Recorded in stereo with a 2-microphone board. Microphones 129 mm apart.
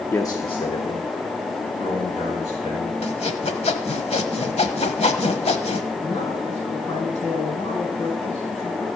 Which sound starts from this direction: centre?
A man speaking, at 0.1 s.